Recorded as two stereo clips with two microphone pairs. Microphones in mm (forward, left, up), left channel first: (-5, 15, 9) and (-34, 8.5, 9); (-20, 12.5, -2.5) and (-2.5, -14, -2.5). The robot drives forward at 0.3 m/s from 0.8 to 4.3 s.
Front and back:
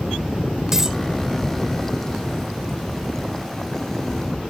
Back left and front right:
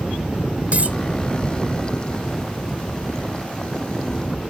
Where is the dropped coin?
95° right.